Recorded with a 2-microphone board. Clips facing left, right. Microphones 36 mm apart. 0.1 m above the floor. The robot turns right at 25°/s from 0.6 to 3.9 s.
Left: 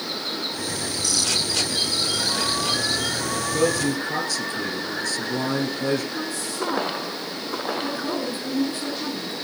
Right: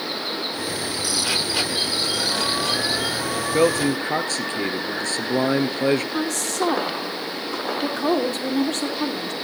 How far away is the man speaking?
About 1.5 m.